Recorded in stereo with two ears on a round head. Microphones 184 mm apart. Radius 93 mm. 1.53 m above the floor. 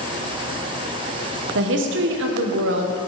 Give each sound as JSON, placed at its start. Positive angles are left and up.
{"t": 1.6, "sound": "a woman speaking", "side_deg": -70, "distance_m": 1.1}